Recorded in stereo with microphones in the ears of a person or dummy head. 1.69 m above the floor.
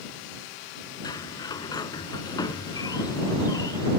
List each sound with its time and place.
1.0 s a sliding door: 20° left (ahead or behind)